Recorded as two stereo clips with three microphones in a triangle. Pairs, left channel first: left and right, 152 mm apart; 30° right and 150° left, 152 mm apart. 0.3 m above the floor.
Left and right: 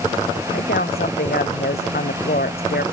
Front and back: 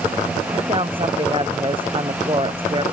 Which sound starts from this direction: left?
A woman speaking, at 0.5 s.